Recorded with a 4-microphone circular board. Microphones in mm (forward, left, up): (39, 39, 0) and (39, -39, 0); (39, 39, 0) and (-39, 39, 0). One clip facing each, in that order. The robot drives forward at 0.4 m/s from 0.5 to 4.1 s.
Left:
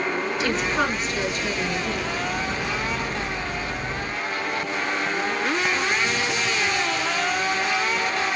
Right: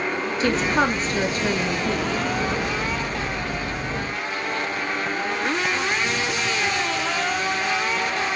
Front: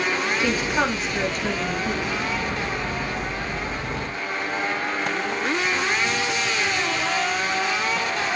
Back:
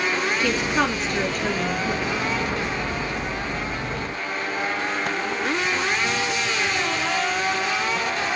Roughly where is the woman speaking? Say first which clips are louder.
Right 5 dB, even; ahead right.